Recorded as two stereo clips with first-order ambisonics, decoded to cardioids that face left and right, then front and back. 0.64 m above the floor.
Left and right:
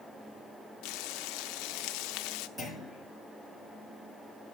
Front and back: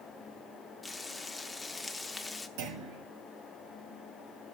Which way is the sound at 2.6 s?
175° right.